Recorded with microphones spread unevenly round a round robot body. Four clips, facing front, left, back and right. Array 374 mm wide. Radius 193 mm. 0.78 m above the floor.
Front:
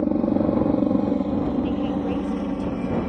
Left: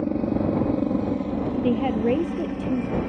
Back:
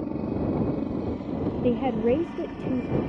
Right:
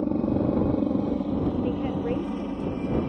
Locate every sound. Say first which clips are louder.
0.0 s a helicopter: left 1 dB, front 8 dB; straight ahead
1.6 s a woman speaking: left 5 dB, back 1 dB; 115° left